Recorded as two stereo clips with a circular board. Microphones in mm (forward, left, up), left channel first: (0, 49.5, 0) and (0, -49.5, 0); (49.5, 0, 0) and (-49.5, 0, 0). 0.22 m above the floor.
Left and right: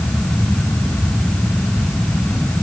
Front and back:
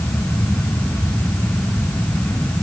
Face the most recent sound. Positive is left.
No sound to turn to.